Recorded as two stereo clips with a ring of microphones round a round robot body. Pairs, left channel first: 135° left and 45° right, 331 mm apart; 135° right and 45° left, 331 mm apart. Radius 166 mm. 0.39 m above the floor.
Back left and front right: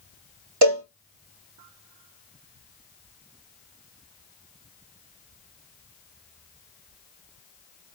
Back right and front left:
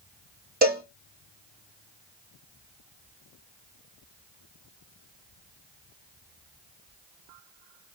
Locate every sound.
0.6 s a cowbell: 20° right, 2.5 m